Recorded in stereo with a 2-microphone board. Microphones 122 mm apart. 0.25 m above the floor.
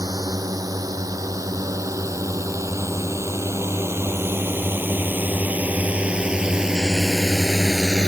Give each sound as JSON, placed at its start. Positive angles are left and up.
{"t": 0.0, "sound": "a drone", "side_deg": -30}